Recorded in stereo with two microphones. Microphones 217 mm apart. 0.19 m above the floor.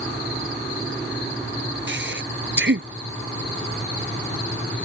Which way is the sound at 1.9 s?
60° right (ahead or behind).